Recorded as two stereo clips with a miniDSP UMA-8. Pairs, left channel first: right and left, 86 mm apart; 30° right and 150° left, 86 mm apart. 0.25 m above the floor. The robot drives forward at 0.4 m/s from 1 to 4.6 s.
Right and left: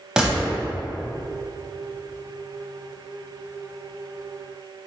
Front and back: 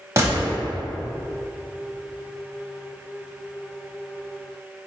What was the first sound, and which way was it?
A gunshot, 165° left.